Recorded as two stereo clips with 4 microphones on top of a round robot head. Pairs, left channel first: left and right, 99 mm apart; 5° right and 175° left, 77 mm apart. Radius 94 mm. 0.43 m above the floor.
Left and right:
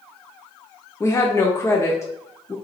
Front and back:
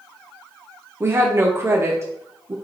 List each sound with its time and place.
1.0 s a woman speaking: 135° left, 1.1 m